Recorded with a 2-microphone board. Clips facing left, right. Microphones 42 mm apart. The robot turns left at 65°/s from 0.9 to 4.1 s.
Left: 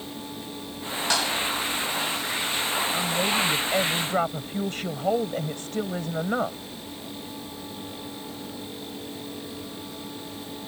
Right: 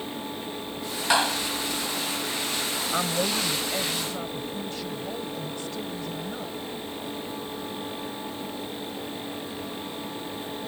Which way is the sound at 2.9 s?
150° right.